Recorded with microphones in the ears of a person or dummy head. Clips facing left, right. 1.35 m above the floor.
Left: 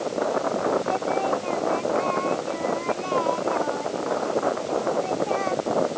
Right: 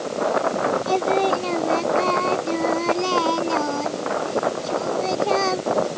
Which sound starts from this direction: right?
Singing, at 0.9 s.